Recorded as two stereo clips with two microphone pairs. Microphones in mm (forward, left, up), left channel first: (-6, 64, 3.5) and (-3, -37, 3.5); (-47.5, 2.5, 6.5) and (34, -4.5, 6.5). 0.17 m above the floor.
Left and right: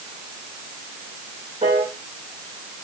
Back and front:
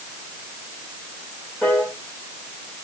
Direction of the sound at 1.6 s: 100° right.